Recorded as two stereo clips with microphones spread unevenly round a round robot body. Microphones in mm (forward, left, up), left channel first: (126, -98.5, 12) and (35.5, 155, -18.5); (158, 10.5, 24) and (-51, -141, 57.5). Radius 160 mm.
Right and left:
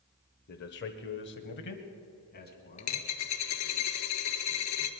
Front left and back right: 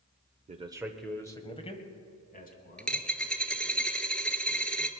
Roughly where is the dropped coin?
Ahead right.